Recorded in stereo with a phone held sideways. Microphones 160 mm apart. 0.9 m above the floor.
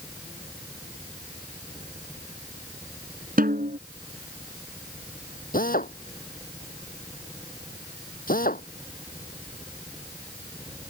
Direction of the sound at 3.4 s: 70° right (ahead or behind).